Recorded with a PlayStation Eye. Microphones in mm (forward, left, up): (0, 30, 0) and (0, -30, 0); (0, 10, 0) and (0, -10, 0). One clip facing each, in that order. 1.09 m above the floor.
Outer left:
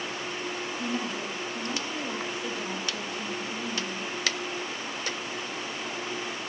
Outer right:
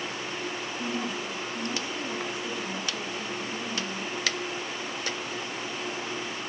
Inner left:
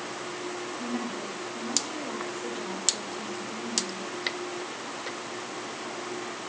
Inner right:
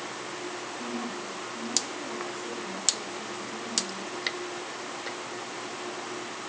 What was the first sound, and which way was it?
A woman speaking, 45° left (ahead or behind).